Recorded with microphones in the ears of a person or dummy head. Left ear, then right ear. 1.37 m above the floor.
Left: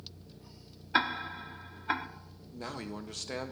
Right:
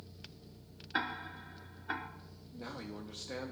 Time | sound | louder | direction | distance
0.9 | ticking | left 7 dB | 30° left (ahead or behind) | 0.7 m
2.5 | a man speaking | left 5 dB | 70° left (ahead or behind) | 1.2 m